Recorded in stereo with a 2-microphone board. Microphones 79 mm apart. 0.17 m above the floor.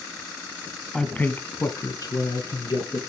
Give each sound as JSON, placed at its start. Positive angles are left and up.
{"t": 0.9, "sound": "a man speaking", "side_deg": 10, "distance_m": 1.2}